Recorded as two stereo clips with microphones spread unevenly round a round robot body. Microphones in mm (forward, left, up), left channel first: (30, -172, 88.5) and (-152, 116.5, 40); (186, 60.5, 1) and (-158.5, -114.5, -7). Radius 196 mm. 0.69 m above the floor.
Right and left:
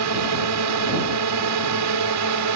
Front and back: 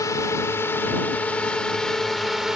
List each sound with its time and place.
0.0 s a drone: 110° left; by 2.6 s 120° left